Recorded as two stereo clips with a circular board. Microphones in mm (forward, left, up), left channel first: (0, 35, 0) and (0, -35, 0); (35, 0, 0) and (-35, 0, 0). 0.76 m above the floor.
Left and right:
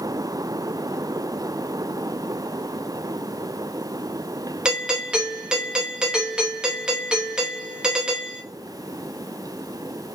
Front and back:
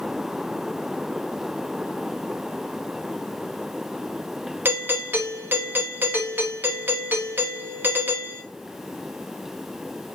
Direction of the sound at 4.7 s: 160° right.